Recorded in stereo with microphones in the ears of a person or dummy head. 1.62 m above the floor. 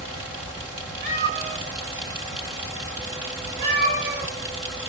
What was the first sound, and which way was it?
A cat meowing, 55° right (ahead or behind).